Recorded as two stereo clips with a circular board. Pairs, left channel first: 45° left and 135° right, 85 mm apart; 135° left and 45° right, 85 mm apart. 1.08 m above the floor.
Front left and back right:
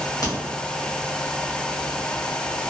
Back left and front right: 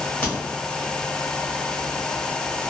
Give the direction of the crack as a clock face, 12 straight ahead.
10 o'clock.